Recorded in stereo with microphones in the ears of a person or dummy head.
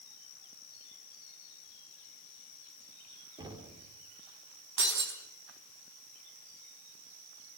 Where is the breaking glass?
60° right (ahead or behind), 4.5 m.